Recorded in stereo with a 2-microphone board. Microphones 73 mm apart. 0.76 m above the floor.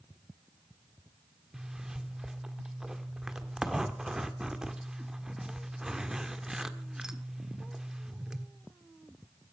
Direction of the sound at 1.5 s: 10° right (ahead or behind).